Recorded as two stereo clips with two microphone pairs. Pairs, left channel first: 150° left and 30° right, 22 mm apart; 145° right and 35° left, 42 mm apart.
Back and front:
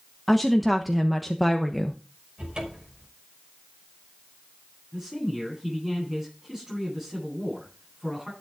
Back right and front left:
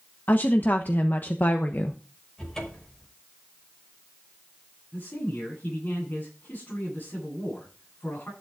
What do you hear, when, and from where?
0.3 s a woman speaking: 120° right, 1.1 m
2.4 s a cupboard door: 75° right, 5.5 m
4.9 s a man speaking: 100° right, 10 m